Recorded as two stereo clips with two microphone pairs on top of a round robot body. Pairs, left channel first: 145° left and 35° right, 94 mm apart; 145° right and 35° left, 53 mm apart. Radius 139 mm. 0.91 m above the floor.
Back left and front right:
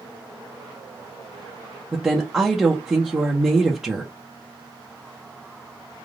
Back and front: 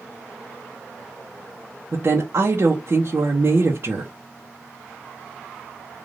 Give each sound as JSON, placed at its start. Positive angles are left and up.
{"t": 1.9, "sound": "a woman speaking", "azimuth_deg": 40, "distance_m": 1.0}